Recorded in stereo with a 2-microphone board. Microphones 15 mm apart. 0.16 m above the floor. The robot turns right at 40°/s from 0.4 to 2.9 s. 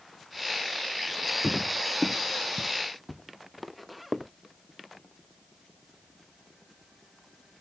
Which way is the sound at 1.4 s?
15° left (ahead or behind).